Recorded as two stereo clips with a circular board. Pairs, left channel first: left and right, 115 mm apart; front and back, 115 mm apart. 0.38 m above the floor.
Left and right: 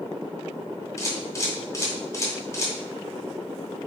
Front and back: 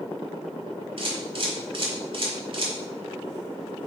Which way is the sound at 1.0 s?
150° left.